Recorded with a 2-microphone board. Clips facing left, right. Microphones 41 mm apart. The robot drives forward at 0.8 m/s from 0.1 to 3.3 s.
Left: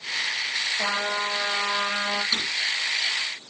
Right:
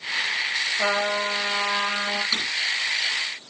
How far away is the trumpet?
About 7.5 m.